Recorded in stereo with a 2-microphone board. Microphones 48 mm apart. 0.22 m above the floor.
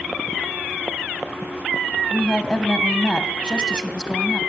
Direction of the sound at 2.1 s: 20° left (ahead or behind).